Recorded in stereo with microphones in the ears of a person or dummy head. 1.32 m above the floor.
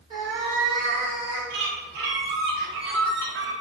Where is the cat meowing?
20° right (ahead or behind), 0.8 m; by 1.4 s 55° right (ahead or behind), 1.3 m.